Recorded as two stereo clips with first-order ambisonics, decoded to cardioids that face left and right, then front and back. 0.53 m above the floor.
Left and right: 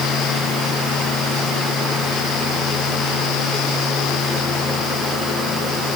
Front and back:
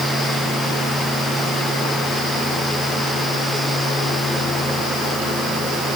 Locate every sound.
Only background noise.